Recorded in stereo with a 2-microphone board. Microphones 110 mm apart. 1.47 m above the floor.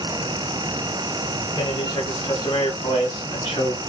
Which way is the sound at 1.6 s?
55° left (ahead or behind).